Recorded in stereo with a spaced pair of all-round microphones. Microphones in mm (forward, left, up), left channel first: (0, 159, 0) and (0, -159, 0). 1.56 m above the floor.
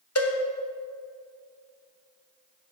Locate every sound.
0.1 s a cowbell: 50° left (ahead or behind), 1.0 m